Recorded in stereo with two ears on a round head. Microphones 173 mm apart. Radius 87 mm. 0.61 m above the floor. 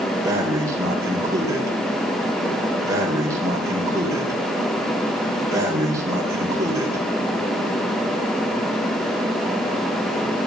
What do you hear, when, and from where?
0.2 s breathing: 15° right (ahead or behind), 3 m